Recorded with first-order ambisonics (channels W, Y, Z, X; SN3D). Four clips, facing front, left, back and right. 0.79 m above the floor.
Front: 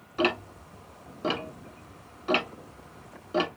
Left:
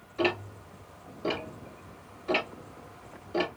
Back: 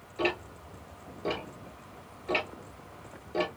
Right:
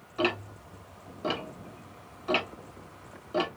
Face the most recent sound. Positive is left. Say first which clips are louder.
# even, front 4 dB
turn(degrees=-25)